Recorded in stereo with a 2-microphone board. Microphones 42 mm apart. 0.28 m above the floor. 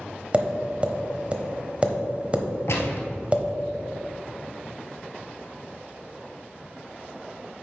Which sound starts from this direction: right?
Tapping, at 0.3 s.